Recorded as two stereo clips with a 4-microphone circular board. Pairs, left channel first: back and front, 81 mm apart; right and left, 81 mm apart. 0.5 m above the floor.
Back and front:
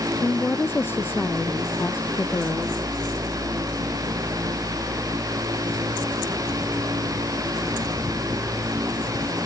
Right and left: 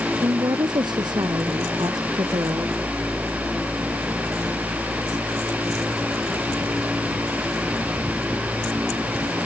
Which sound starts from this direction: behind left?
A woman speaking, at 0.2 s.